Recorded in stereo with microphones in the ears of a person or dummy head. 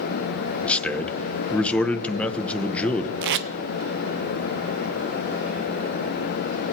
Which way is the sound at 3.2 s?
55° right (ahead or behind).